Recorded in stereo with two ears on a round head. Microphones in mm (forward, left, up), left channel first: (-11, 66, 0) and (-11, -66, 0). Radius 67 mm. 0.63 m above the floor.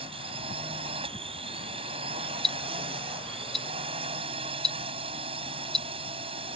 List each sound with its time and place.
0.0 s a drone: 35° right (ahead or behind)
2.4 s ticking: centre (ahead or behind)